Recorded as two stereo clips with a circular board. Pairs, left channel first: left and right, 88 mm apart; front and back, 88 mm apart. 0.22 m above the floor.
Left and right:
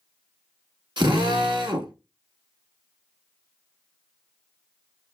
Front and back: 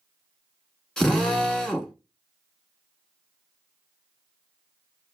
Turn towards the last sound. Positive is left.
turn(degrees=-80)